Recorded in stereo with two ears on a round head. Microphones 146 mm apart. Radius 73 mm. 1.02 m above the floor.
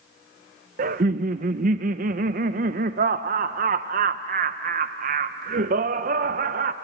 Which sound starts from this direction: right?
Laughter, at 0.8 s.